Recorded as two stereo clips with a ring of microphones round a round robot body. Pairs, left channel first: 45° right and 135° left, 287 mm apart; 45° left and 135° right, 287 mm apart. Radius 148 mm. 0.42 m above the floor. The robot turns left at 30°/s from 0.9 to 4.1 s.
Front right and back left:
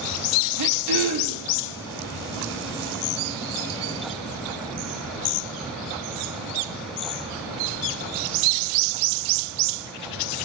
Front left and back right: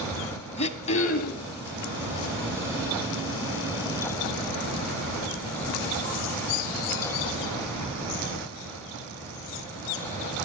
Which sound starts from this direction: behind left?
Throat clearing, at 0.6 s.